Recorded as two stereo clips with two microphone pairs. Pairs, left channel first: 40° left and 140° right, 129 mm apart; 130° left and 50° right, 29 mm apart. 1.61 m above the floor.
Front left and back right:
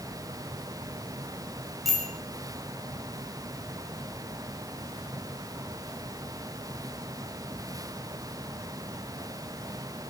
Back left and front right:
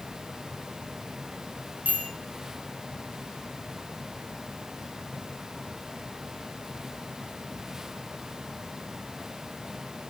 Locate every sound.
1.9 s a bicycle bell: 50° right, 6.5 m